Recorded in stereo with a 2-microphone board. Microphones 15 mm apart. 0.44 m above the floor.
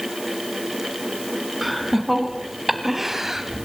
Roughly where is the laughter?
Centre.